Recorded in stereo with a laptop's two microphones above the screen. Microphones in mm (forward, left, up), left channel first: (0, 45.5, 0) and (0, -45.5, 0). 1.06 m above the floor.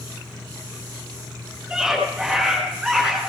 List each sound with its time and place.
1.7 s a scream: 5° right (ahead or behind), 10 m; by 3.2 s 5° left (ahead or behind), 10 m